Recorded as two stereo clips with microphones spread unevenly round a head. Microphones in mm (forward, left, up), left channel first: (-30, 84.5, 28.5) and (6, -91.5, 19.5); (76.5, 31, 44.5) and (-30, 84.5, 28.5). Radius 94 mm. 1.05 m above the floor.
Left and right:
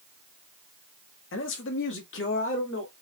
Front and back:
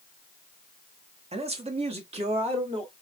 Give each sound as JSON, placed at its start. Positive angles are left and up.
{"t": 1.3, "sound": "a man speaking", "azimuth_deg": 120, "distance_m": 1.5}